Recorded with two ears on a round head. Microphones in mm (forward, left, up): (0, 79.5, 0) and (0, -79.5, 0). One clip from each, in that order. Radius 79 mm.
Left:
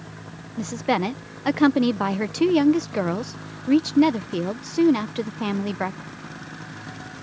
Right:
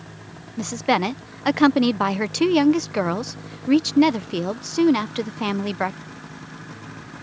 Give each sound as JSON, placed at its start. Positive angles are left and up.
{"t": 0.6, "sound": "a woman speaking", "side_deg": -25}